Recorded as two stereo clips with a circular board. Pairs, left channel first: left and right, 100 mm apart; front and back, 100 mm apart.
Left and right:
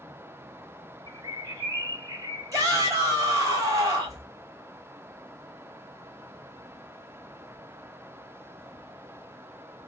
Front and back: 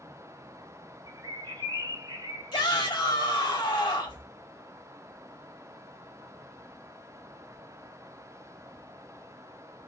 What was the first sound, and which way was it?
A bird, 135° right.